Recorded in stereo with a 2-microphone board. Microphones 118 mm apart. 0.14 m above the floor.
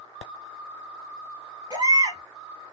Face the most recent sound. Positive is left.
turn(degrees=-35)  # may be behind; listen again after turning